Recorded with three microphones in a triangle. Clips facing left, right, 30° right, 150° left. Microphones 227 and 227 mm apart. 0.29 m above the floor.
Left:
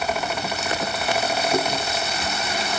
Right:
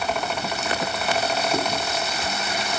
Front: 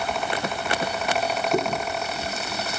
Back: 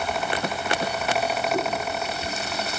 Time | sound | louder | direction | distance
1.5 | chewing | left 2 dB, front 2 dB | 15° left | 3.5 m